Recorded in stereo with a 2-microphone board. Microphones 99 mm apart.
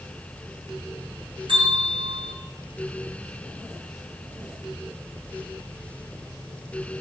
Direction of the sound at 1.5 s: 65° right (ahead or behind).